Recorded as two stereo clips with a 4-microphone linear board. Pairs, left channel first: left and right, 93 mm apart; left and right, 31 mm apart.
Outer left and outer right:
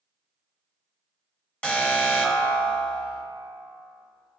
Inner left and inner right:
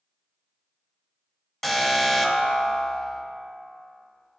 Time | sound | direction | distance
1.6 | an alarm | 10° left (ahead or behind) | 1.2 m